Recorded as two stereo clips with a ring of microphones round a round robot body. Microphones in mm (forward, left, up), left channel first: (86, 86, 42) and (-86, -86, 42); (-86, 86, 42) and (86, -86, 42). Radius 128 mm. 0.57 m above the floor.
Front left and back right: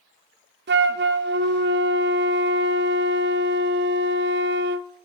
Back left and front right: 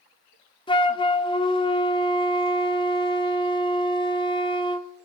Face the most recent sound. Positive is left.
turn(degrees=-160)